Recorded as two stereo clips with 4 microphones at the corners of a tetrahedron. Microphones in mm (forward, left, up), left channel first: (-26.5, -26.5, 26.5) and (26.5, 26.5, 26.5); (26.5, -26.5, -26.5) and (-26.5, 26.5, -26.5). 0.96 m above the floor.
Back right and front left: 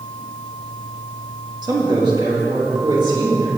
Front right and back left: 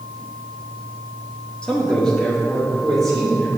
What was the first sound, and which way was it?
A man speaking, 30° left.